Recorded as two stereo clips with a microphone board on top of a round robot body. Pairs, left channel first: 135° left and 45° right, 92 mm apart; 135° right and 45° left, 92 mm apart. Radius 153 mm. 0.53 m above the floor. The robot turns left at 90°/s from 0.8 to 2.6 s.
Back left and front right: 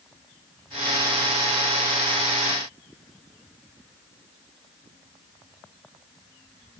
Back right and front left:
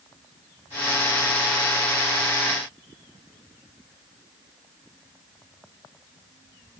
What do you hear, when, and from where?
Only background noise.